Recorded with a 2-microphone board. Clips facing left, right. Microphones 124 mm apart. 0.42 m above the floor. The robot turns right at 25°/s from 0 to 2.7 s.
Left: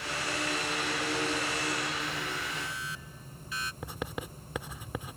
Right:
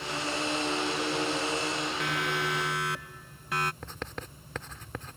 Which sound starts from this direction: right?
A siren, at 2.0 s.